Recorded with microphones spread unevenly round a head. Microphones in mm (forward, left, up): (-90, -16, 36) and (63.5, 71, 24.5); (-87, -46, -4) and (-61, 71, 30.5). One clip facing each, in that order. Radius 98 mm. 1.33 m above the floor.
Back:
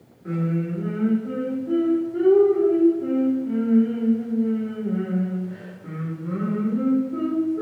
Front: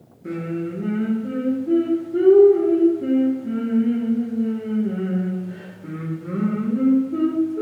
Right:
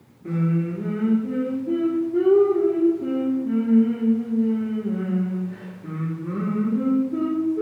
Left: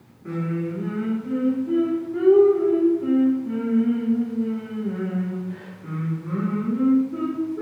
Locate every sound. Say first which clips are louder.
0.2 s singing: even, right 3 dB; 30° right, 1.6 m